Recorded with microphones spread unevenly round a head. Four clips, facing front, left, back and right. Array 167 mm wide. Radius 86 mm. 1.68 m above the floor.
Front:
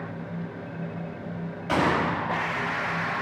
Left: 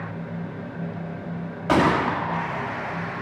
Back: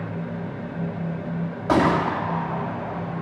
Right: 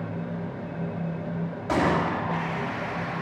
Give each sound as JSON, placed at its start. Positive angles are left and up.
{"t": 1.7, "sound": "a gunshot", "azimuth_deg": 130, "distance_m": 2.5}